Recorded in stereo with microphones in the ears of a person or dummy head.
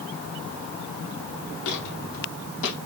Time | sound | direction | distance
1.6 | footsteps | 65° left (ahead or behind) | 3.5 m